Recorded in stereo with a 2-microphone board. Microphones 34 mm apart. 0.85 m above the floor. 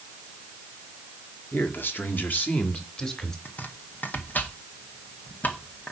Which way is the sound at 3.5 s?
55° left (ahead or behind).